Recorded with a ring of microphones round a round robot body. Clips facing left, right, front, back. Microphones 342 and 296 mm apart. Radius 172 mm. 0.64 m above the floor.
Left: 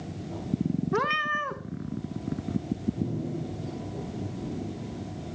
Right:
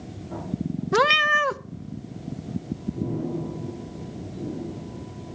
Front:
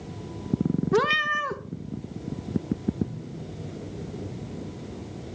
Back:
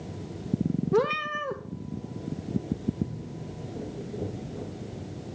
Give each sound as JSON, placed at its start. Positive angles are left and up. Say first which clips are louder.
{"t": 0.9, "sound": "a cat meowing", "louder": "right 6 dB, even", "azimuth_deg": -65, "distance_m": 0.7}